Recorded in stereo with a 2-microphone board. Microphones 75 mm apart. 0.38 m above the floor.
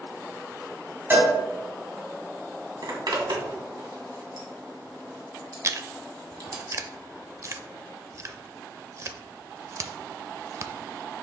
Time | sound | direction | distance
1.1 | a cowbell | 30° right (ahead or behind) | 2.5 m
2.8 | a zipper | 70° right (ahead or behind) | 2 m
5.6 | chewing | 40° right (ahead or behind) | 0.5 m